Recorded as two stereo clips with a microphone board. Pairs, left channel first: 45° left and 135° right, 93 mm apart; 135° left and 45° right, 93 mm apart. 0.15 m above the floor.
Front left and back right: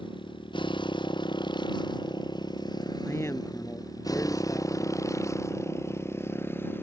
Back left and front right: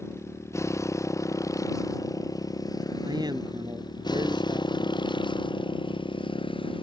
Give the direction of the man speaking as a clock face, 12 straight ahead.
12 o'clock.